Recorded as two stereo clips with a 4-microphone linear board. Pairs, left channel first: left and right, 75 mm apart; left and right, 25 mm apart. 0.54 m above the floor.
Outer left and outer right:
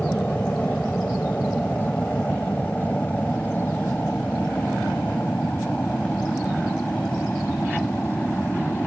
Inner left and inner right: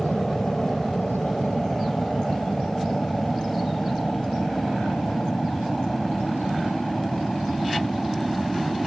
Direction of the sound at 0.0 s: 15° left (ahead or behind).